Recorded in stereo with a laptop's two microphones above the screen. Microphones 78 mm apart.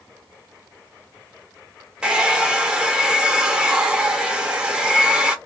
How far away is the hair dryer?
About 0.7 m.